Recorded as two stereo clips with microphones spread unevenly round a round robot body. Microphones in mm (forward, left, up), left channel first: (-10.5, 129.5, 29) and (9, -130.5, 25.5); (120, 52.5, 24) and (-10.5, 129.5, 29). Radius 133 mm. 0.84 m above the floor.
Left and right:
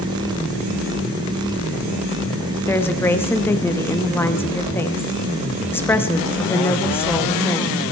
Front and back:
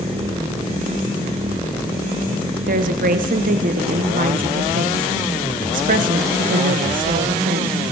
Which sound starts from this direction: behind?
A woman speaking, at 2.7 s.